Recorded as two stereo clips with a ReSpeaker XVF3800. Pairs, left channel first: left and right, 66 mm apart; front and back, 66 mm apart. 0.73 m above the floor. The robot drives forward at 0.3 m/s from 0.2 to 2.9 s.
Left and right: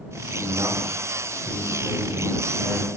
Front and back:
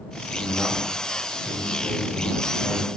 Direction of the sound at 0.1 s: 65° right.